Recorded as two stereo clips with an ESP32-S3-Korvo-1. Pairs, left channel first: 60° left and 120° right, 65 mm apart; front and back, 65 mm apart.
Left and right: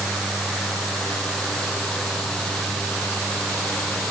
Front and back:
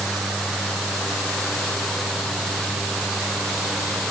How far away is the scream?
No scream in this recording.